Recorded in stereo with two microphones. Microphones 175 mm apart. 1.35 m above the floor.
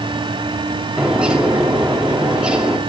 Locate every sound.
1.0 s a bird: 5° right (ahead or behind), 2 m